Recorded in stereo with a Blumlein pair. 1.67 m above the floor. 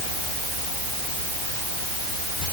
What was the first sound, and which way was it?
Only background noise.